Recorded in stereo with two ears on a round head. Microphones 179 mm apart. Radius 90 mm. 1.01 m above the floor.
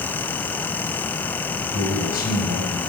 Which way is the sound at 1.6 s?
50° left (ahead or behind).